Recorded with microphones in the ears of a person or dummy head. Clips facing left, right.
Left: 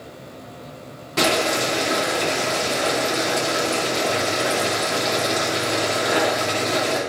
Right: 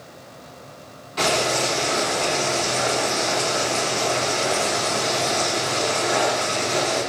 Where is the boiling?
70° left (ahead or behind), 3.5 m.